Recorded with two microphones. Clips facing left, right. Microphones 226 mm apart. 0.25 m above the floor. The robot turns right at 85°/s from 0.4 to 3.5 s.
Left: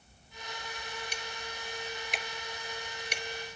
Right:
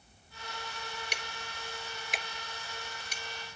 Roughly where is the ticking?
Right.